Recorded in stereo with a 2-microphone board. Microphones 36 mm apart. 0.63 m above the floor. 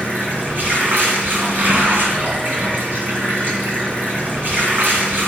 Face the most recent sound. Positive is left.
turn(degrees=-70)  # may be behind; listen again after turning